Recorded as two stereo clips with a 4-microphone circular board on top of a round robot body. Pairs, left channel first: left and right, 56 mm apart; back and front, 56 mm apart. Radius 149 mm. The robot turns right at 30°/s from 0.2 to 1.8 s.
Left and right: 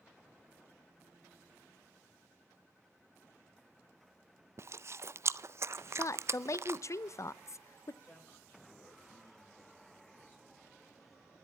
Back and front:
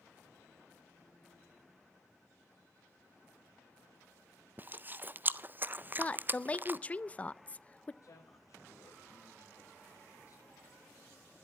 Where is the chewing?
55° right, 0.6 m.